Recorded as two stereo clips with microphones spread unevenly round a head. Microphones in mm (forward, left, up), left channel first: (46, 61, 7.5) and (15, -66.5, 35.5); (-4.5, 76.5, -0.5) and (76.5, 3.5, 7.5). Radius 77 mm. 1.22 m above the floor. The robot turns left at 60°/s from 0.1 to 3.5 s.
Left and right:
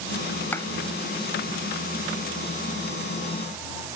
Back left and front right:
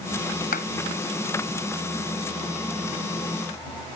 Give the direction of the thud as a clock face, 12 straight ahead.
7 o'clock.